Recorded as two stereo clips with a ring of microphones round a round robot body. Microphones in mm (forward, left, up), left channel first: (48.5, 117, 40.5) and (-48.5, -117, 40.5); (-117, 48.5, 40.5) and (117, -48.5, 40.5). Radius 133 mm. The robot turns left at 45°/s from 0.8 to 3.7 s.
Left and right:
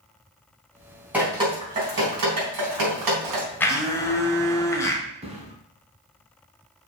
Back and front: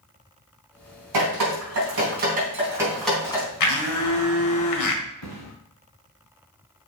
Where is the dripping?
30° right, 3.5 m; by 3.5 s 135° right, 3.5 m.